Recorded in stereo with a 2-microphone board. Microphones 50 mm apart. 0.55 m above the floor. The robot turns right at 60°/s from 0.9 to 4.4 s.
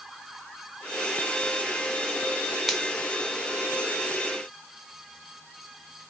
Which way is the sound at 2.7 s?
Centre (ahead or behind).